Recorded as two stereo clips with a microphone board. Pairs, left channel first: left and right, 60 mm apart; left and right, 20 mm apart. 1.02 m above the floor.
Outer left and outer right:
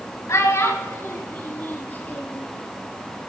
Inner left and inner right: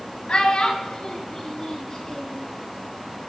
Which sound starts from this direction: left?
A child speaking, at 0.3 s.